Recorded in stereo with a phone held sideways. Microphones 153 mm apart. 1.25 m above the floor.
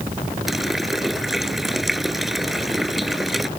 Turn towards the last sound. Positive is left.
turn(degrees=0)  # may be behind; listen again after turning